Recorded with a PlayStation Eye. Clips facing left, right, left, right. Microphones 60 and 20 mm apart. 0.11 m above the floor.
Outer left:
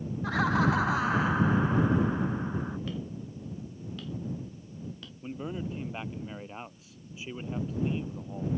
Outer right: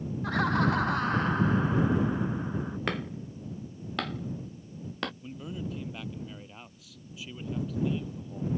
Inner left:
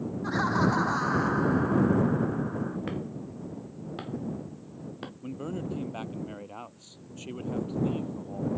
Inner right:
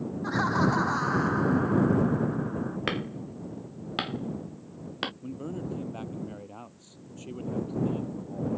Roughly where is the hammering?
Right.